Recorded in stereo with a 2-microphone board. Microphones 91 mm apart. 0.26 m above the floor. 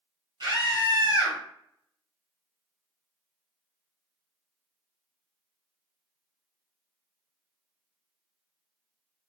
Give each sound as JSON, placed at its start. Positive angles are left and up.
{"t": 0.4, "sound": "a scream", "side_deg": -50, "distance_m": 1.8}